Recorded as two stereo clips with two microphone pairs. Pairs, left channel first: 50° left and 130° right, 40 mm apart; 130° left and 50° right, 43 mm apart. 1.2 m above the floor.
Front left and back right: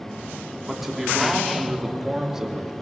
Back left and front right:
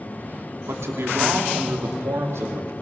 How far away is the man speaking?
About 3 m.